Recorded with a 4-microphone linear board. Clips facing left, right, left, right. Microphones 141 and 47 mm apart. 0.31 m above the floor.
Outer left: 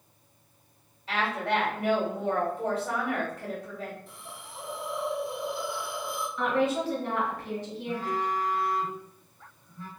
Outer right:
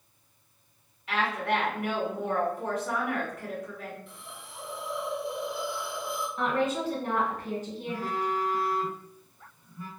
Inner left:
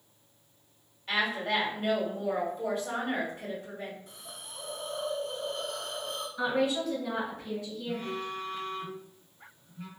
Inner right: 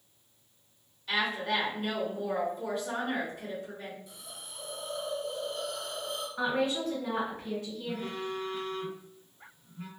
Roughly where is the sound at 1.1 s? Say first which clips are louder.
Even, inner left 1 dB; left.